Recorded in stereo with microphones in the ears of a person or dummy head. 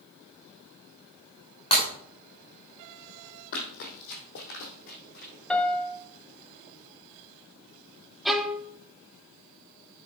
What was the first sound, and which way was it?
Breaking glass, 40° left (ahead or behind).